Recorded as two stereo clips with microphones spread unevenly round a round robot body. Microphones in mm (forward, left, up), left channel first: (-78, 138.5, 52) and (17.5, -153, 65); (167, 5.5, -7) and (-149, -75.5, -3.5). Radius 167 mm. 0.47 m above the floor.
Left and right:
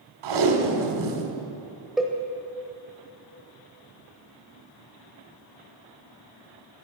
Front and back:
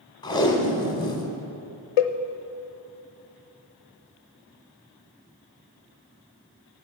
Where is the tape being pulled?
65° right, 1.3 m.